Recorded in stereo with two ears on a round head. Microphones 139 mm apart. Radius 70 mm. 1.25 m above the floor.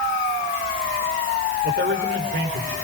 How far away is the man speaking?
About 5 m.